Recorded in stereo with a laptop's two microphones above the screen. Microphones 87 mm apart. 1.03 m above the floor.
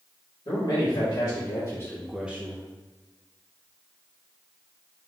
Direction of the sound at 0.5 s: 75° left (ahead or behind).